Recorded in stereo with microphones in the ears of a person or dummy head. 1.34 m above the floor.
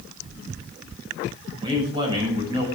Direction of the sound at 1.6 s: 30° right (ahead or behind).